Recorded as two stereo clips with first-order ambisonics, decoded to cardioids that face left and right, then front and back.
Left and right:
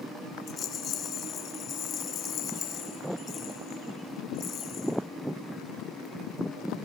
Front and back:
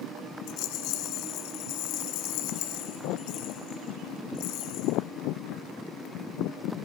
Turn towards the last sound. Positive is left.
turn(degrees=30)